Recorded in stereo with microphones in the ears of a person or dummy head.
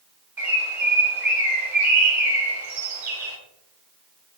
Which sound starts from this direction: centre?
A bird, at 0.4 s.